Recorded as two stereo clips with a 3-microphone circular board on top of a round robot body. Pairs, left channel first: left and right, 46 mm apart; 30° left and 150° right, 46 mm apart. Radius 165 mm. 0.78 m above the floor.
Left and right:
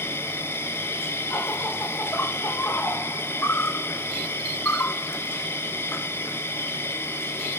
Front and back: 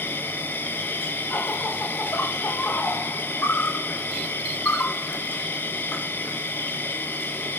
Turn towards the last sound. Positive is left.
turn(degrees=65)